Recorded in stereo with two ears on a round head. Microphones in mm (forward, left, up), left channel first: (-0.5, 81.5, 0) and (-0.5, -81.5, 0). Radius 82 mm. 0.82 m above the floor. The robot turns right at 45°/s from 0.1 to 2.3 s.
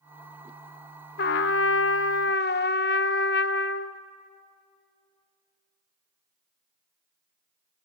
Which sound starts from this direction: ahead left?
A trumpet, at 1.2 s.